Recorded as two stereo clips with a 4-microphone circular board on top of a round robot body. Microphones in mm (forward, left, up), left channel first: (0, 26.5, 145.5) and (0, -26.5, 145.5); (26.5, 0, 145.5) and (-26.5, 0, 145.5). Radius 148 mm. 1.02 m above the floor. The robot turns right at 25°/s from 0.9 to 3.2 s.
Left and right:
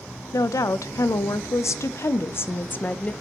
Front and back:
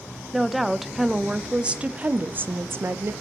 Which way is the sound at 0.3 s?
95° left.